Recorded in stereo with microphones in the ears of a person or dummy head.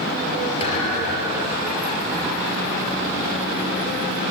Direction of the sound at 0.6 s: 40° left (ahead or behind).